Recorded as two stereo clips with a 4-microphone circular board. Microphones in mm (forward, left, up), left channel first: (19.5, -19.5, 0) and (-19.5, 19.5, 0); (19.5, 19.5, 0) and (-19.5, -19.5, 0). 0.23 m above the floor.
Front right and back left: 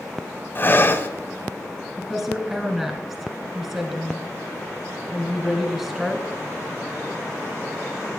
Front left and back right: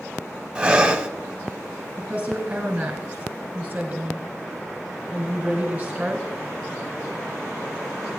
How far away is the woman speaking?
About 1.6 m.